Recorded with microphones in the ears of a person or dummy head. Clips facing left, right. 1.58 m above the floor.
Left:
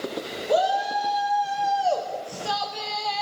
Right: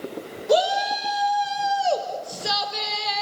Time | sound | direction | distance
0.5 | a shout | 40° right (ahead or behind) | 5 m